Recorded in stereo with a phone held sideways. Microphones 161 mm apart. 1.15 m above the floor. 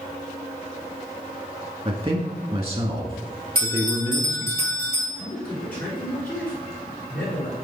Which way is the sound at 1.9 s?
35° right (ahead or behind).